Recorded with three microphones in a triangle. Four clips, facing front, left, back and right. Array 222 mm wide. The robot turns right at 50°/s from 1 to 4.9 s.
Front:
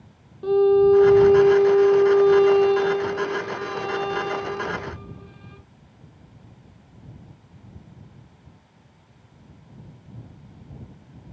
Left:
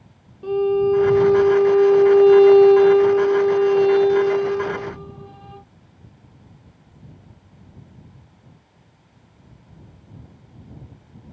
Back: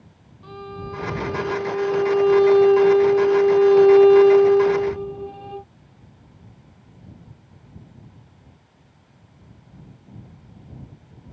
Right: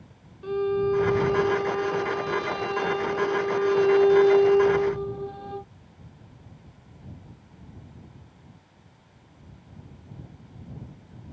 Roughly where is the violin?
Ahead.